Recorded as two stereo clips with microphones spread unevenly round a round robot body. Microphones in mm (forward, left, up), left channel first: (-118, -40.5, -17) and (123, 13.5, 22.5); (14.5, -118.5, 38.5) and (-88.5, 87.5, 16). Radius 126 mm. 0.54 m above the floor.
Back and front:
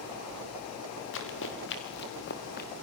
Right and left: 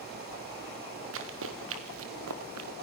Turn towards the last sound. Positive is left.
turn(degrees=135)